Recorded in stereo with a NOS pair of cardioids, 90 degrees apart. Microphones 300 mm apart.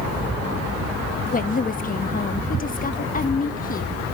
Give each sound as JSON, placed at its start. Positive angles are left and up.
{"t": 1.3, "sound": "a woman speaking", "azimuth_deg": 30, "distance_m": 1.3}